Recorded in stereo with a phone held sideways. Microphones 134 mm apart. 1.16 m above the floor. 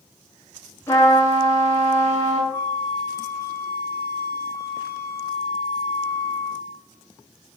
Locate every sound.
0.9 s a trumpet: 20° left (ahead or behind), 2.5 m
2.5 s a flute: 20° left (ahead or behind), 1.2 m